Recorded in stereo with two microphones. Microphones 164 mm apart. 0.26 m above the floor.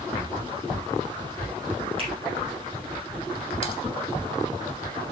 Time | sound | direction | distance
2.0 | a finger snap | 40° right (ahead or behind) | 6 m
3.6 | typing on a keyboard | 30° left (ahead or behind) | 2 m